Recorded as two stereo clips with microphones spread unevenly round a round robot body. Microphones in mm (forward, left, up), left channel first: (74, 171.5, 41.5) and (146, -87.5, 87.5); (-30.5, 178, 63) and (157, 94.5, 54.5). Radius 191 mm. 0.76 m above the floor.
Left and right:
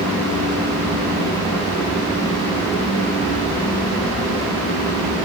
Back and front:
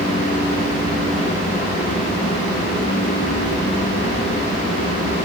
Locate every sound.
Only background noise.